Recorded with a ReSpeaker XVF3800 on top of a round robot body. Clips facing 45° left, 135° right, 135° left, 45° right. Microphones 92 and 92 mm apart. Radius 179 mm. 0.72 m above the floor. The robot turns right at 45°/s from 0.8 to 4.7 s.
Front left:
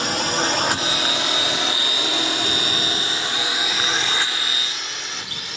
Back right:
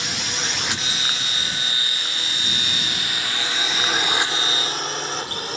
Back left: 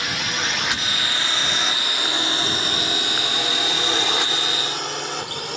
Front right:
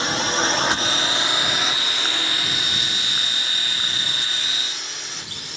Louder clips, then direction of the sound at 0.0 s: Front left 7 dB, front right 4 dB; 10° left.